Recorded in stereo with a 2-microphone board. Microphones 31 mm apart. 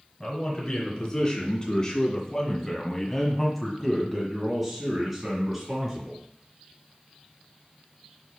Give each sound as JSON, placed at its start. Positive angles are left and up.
{"t": 0.2, "sound": "a man speaking", "side_deg": 25, "distance_m": 2.5}